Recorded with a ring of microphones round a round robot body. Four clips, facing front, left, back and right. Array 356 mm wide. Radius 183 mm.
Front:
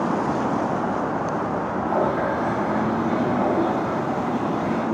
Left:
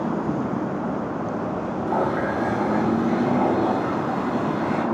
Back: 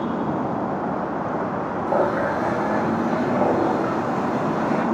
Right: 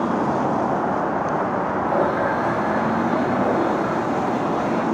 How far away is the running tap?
About 3 m.